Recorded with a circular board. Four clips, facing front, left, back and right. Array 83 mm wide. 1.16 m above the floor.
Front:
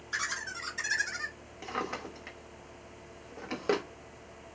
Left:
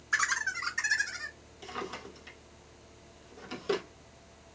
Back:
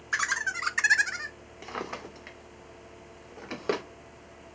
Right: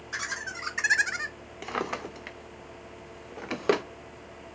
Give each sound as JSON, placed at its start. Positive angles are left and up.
{"t": 0.1, "sound": "laughter", "azimuth_deg": 150, "distance_m": 1.4}
{"t": 1.6, "sound": "a drawer", "azimuth_deg": -90, "distance_m": 0.7}